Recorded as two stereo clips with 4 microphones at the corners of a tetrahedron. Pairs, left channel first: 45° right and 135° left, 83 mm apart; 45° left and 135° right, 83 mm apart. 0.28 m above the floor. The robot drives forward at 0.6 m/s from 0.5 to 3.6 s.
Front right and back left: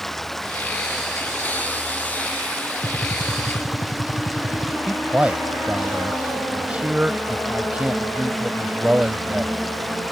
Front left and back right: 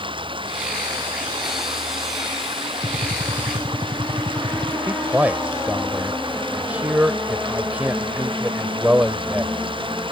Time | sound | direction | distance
0.0 | running water | 130° right | ?
2.8 | a gunshot | 90° right | ?
4.9 | a man speaking | straight behind | ?